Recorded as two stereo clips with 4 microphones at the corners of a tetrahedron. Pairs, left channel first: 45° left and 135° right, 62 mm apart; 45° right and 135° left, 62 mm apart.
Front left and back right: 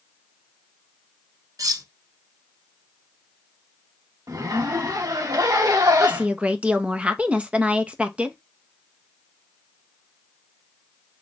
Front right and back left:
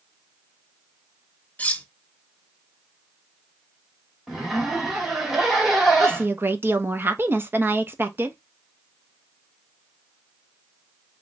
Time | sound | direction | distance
1.6 | cutlery clinking | 110° right | 0.8 m
4.3 | a zipper | 140° right | 2.5 m
6.0 | a woman speaking | 165° left | 1.0 m